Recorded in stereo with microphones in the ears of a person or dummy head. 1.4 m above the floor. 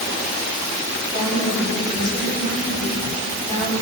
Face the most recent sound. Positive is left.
turn(degrees=25)  # may be behind; listen again after turning